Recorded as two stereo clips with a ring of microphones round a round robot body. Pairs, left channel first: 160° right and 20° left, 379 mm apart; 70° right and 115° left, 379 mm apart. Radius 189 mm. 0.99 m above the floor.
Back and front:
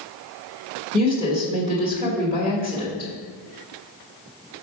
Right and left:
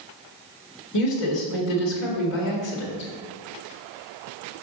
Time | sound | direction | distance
0.9 | a woman speaking | 55° right | 1.9 m